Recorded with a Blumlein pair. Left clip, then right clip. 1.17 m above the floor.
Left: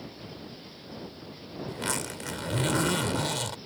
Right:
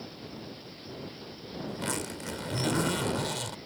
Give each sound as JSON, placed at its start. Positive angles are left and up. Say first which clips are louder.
{"t": 1.7, "sound": "a zipper", "louder": "left 3 dB", "azimuth_deg": 10}